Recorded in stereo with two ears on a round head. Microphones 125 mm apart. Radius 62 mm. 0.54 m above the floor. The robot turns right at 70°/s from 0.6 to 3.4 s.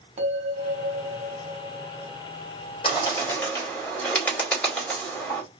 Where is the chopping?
No chopping in this recording.